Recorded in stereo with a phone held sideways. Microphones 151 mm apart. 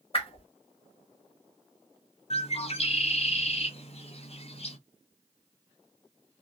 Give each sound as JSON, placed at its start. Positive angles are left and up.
{"t": 0.1, "sound": "a whoosh", "side_deg": 40, "distance_m": 1.1}
{"t": 2.3, "sound": "a bird", "side_deg": 45, "distance_m": 0.7}